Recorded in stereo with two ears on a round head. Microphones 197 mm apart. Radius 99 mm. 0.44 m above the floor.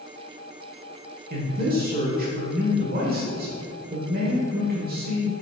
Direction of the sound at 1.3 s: 45° right (ahead or behind).